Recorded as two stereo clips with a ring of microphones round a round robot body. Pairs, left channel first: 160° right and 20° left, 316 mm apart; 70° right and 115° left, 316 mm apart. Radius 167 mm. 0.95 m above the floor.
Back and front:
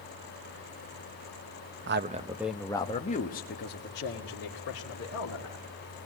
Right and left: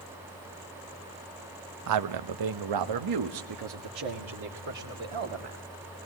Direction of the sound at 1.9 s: 75° left.